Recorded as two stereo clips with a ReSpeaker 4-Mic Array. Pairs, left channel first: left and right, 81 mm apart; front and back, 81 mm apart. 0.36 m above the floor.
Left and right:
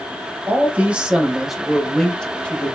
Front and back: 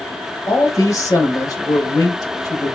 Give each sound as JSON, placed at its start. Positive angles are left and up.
{"t": 0.5, "sound": "a man speaking", "azimuth_deg": -35, "distance_m": 1.5}